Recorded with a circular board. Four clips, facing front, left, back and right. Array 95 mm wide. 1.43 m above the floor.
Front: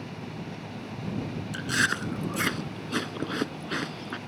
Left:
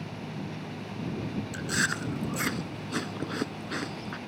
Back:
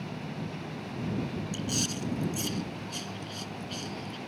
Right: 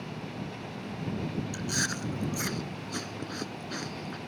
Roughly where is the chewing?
Ahead.